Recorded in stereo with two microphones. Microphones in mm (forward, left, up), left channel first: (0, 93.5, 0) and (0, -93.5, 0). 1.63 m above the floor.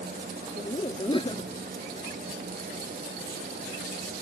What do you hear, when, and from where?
0.6 s laughter: 25° left (ahead or behind)